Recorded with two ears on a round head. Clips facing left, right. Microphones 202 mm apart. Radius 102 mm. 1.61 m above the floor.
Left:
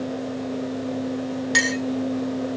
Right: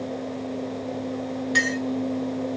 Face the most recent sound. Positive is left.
turn(degrees=60)  # may be behind; listen again after turning